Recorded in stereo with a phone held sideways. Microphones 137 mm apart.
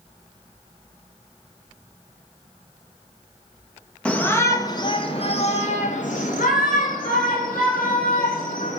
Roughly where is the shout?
Centre.